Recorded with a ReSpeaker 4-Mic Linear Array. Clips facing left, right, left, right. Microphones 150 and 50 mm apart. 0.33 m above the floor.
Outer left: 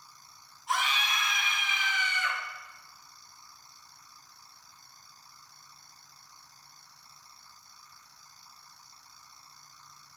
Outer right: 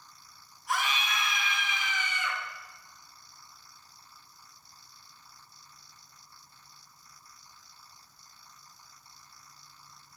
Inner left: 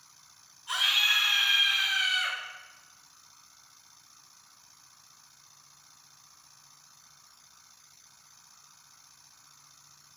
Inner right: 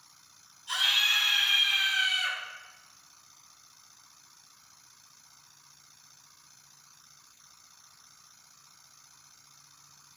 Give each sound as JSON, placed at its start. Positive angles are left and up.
{"t": 0.7, "sound": "a scream", "side_deg": 25, "distance_m": 2.5}